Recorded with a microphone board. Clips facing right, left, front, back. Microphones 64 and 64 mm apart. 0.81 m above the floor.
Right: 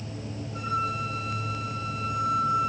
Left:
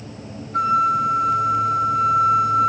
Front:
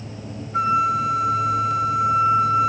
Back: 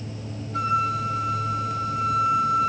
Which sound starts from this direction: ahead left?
A flute, at 0.5 s.